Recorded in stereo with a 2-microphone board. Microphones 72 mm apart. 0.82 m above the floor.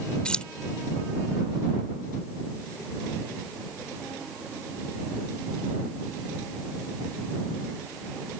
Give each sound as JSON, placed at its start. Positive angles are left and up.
{"t": 0.2, "sound": "keys jangling", "side_deg": 10}